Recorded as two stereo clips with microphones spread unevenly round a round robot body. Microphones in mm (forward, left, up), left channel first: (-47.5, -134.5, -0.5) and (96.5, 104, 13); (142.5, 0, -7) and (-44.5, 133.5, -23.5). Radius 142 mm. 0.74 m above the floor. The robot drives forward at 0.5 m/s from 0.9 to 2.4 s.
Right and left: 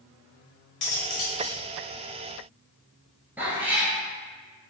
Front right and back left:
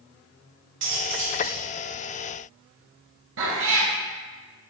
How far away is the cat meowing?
About 1.1 m.